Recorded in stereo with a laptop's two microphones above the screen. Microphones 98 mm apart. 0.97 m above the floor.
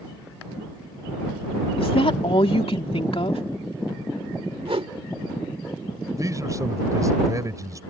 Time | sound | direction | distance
1.8 | a woman speaking | 75° left (ahead or behind) | ?
4.7 | a whoosh | 75° right (ahead or behind) | ?
6.2 | a man speaking | 35° right (ahead or behind) | ?